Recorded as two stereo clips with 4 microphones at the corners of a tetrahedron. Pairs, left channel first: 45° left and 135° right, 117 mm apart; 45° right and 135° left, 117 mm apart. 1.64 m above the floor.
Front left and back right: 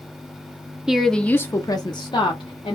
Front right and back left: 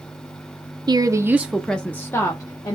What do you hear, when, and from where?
0.9 s a woman speaking: 145° left, 0.5 m; by 2.8 s 10° left, 1.0 m